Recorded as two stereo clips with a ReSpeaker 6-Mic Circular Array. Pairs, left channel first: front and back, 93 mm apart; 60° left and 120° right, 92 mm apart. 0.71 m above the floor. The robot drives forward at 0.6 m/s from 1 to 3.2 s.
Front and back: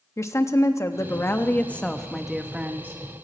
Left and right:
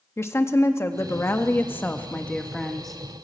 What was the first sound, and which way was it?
A woman speaking, 20° left.